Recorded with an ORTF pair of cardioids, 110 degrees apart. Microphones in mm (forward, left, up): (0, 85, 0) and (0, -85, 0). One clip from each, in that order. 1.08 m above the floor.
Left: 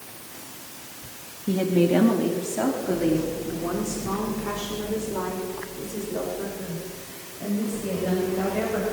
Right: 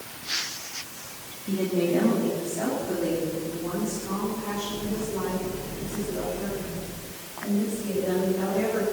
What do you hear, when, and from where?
1.5 s a woman speaking: 45° left, 1.7 m; by 8.8 s 40° left, 6 m